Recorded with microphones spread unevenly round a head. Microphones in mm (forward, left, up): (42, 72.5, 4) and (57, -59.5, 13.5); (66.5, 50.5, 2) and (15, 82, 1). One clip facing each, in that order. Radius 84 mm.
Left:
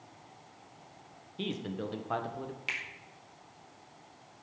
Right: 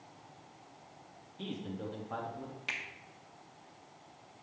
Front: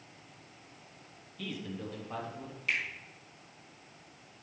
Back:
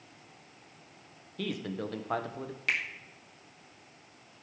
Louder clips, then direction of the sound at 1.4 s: Left 4 dB, back 5 dB; 120° left.